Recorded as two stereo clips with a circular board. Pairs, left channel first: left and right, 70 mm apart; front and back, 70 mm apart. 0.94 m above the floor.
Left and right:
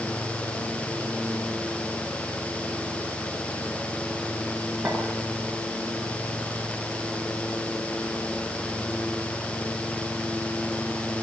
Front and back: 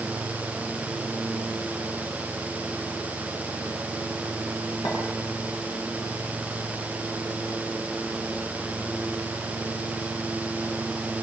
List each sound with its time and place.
4.8 s a clink: 10° right, 9 m